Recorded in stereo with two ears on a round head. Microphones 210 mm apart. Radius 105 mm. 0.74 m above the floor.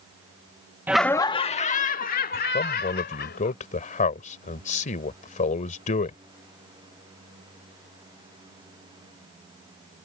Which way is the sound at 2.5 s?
35° left (ahead or behind).